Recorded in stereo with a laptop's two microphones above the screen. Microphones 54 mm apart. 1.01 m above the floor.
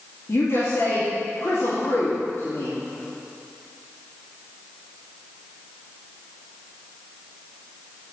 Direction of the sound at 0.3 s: 55° left (ahead or behind).